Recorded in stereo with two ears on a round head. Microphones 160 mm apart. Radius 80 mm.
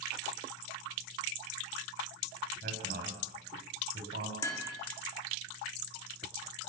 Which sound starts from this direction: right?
A man speaking, at 2.6 s.